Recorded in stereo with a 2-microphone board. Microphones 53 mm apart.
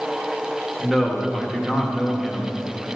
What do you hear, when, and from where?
0.8 s a man speaking: centre (ahead or behind), 1.6 m